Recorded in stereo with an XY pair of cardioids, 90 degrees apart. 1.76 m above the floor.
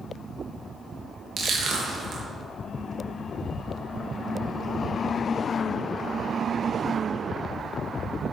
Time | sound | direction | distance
1.4 | crushing | 65° right | 3 m